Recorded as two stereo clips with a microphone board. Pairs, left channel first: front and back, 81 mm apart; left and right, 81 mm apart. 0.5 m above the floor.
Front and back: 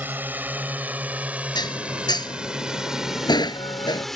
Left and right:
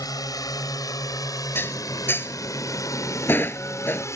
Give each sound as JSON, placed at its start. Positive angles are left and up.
{"t": 0.0, "sound": "a drone", "azimuth_deg": 115}
{"t": 1.6, "sound": "dishes clattering", "azimuth_deg": 25}